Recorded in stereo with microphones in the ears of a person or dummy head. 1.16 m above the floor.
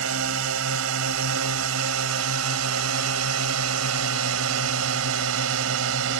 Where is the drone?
75° right (ahead or behind).